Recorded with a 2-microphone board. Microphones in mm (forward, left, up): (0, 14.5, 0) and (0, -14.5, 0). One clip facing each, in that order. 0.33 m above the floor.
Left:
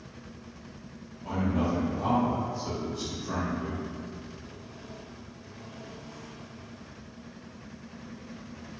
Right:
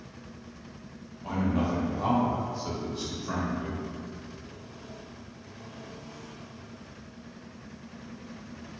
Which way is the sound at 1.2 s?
30° right (ahead or behind).